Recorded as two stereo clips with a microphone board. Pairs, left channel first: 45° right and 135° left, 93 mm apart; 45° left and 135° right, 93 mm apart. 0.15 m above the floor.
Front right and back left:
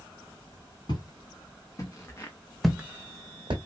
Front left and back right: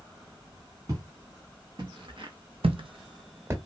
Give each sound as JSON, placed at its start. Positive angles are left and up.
{"t": 0.9, "sound": "footsteps", "azimuth_deg": -85, "distance_m": 1.4}